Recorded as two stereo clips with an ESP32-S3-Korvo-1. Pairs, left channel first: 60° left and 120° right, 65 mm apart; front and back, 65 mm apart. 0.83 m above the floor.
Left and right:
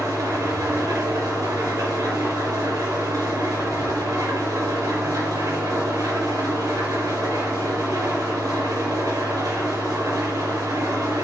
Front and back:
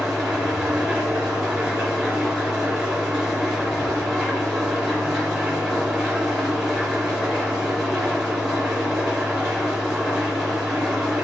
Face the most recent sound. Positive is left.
turn(degrees=-100)